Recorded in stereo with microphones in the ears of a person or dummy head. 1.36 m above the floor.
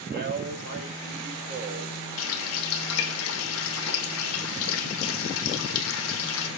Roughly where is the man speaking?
Right.